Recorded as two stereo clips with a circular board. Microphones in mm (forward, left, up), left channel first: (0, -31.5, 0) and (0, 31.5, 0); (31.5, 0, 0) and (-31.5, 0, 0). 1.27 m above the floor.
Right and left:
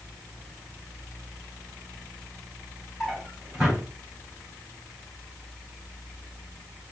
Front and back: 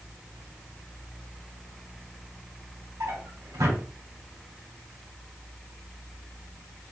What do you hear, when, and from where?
3.0 s a drawer: 175° left, 2.5 m